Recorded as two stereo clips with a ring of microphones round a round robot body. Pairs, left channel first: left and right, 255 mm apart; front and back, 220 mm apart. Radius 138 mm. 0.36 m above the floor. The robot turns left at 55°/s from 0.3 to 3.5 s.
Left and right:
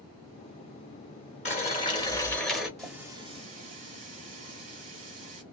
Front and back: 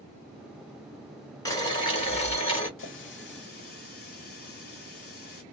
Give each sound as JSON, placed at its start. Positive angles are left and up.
{"t": 1.4, "sound": "boiling", "azimuth_deg": 60, "distance_m": 1.7}
{"t": 2.8, "sound": "a running tap", "azimuth_deg": 5, "distance_m": 1.2}